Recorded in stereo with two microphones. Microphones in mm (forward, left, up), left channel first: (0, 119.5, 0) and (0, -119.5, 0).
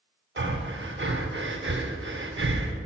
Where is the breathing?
50° right (ahead or behind), 0.8 m.